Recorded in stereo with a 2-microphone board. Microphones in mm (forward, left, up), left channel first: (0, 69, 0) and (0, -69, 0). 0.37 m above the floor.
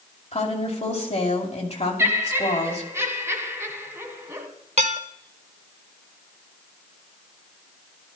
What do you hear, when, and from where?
0.3 s a woman speaking: 50° left (ahead or behind), 2.5 m
2.0 s laughter: 20° right (ahead or behind), 1.5 m
4.8 s dishes clattering: 50° right (ahead or behind), 1.0 m